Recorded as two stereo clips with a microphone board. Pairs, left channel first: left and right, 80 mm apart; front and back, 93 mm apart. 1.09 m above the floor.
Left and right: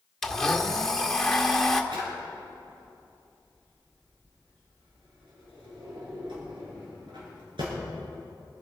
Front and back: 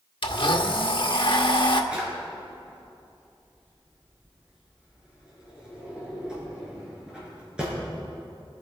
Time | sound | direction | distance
0.2 | a blender | 5° left | 1.1 m
1.9 | a drawer | 100° right | 6 m